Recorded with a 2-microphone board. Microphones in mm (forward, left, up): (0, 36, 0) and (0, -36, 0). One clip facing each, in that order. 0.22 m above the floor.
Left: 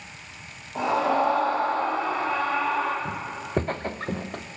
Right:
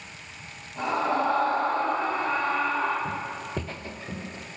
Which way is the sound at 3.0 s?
5° left (ahead or behind).